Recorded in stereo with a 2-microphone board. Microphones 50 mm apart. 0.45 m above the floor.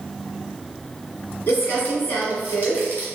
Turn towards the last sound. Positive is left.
turn(degrees=35)  # may be behind; listen again after turning